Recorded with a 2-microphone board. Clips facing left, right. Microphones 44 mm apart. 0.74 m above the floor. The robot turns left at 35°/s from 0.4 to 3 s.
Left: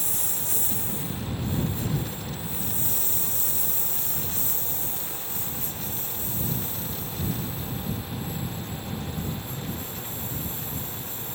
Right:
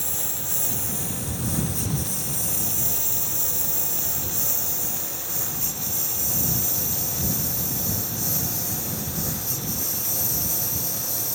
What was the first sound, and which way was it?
A lawn mower, 45° right (ahead or behind).